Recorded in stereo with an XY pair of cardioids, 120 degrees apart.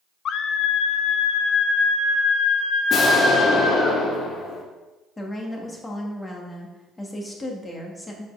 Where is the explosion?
40° left, 2 m.